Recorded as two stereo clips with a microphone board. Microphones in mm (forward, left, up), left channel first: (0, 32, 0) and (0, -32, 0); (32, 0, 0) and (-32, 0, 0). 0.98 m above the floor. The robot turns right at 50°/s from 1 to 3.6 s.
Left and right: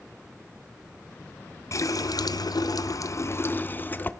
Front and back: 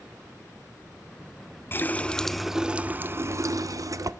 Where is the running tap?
55° left, 0.5 m; by 4.1 s 150° left, 0.5 m.